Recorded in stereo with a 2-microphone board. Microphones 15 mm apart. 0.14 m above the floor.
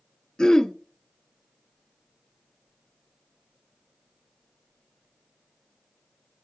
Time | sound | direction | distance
0.4 | throat clearing | 45° left (ahead or behind) | 0.8 m